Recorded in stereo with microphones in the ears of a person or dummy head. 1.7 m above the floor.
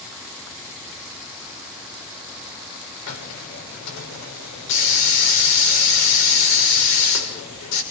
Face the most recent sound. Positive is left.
turn(degrees=85)